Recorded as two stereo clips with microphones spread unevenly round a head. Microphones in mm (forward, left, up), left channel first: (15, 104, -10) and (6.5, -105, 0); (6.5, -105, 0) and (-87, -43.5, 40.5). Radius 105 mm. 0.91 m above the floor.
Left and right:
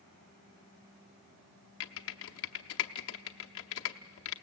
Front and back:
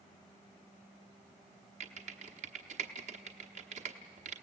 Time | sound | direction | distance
1.8 | typing on a keyboard | 115° left | 0.8 m